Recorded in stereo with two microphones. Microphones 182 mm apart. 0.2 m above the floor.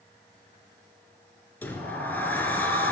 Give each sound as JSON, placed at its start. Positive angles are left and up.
{"t": 1.6, "sound": "a sliding door", "side_deg": 10, "distance_m": 0.8}